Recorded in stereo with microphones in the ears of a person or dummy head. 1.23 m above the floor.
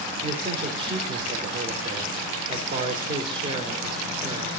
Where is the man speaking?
25° right (ahead or behind), 4 m.